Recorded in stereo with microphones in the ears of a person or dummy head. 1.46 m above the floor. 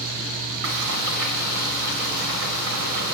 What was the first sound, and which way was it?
Frying, 75° right (ahead or behind).